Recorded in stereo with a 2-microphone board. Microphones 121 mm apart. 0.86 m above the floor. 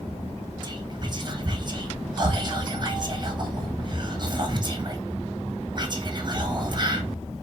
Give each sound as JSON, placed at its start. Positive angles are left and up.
{"t": 0.6, "sound": "whispering", "side_deg": -35, "distance_m": 1.0}